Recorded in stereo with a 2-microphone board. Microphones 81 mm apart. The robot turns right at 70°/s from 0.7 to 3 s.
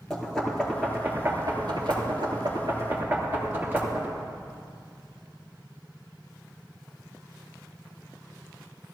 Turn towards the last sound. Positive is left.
turn(degrees=-25)  # may be behind; listen again after turning